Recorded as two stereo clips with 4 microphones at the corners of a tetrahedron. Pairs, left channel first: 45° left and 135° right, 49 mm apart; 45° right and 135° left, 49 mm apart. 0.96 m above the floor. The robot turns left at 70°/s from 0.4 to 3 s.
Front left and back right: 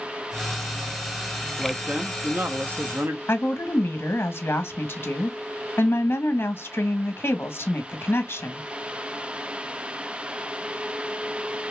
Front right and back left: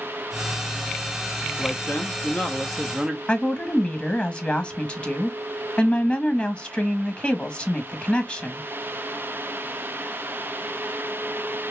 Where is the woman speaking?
15° left, 1.0 m.